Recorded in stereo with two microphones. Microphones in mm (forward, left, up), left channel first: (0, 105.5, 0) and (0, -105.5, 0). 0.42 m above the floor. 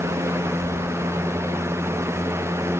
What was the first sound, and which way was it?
Keys jangling, 85° right.